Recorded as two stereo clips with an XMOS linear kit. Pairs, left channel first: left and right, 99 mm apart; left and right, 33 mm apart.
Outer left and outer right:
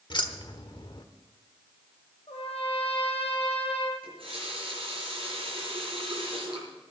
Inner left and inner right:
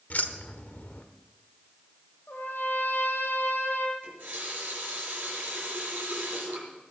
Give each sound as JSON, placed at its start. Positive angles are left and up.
{"t": 0.1, "sound": "keys jangling", "side_deg": 55, "distance_m": 1.1}
{"t": 2.3, "sound": "a trumpet", "side_deg": 85, "distance_m": 5.0}
{"t": 4.0, "sound": "a running tap", "side_deg": -70, "distance_m": 6.0}